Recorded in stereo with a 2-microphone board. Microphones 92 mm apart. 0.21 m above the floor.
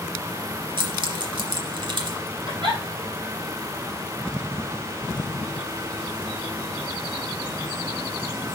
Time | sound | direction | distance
0.8 | keys jangling | 55° right (ahead or behind) | 1.5 m
2.5 | a giggle | 60° right (ahead or behind) | 2.5 m